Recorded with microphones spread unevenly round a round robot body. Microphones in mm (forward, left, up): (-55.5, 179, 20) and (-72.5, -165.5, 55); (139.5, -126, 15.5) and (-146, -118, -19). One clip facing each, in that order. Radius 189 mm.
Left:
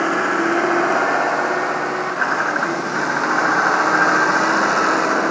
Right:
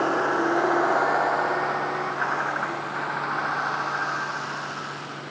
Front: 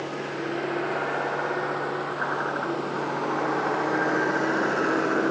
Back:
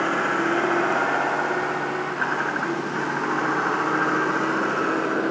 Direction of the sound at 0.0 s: 130° left.